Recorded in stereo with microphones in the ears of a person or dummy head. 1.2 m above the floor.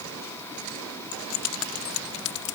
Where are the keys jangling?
70° left (ahead or behind); by 2.5 s 75° left (ahead or behind).